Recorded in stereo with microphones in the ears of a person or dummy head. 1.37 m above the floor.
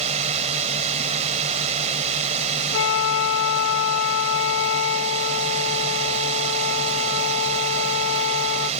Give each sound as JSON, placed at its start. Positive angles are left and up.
{"t": 0.0, "sound": "a drone", "side_deg": -40}
{"t": 2.7, "sound": "a flute", "side_deg": 70}